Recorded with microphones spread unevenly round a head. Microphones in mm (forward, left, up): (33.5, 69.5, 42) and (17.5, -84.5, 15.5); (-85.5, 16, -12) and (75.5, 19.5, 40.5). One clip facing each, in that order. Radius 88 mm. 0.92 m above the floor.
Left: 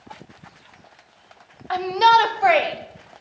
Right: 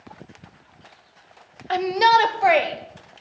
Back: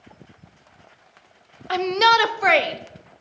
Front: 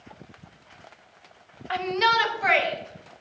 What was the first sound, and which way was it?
A shout, 155° right.